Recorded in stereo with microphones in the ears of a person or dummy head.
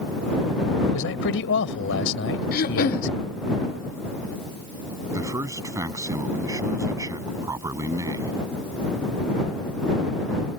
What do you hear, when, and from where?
0.9 s a man speaking: 75° left (ahead or behind)
2.5 s throat clearing: 55° left (ahead or behind)
5.1 s a man speaking: 20° right (ahead or behind)